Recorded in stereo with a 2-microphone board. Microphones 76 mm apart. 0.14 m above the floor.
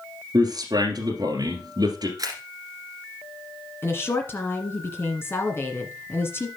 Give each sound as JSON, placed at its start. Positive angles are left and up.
{"t": 0.3, "sound": "a man speaking", "side_deg": -60, "distance_m": 2.0}
{"t": 2.2, "sound": "a camera shutter", "side_deg": -55, "distance_m": 1.9}
{"t": 3.8, "sound": "a woman speaking", "side_deg": 30, "distance_m": 1.7}